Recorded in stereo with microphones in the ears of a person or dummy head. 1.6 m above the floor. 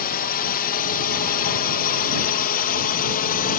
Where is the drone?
45° left (ahead or behind); by 3.6 s 40° left (ahead or behind).